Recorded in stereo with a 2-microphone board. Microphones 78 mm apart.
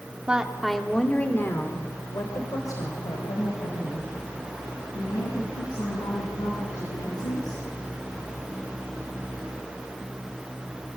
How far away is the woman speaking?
About 2 m.